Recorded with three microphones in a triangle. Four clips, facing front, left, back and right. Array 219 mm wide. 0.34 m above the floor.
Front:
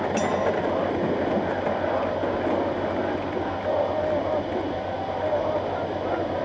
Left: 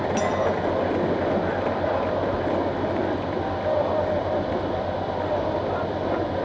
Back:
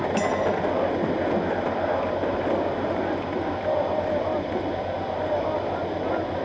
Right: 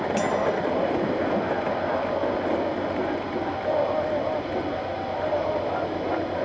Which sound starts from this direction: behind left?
A clink, at 0.2 s.